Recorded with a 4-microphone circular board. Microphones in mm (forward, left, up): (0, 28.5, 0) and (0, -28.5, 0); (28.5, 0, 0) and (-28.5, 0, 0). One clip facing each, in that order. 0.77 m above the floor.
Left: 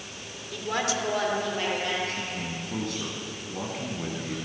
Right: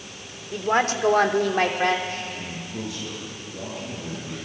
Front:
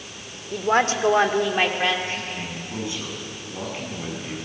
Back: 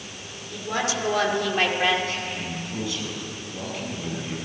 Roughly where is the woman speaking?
Ahead right.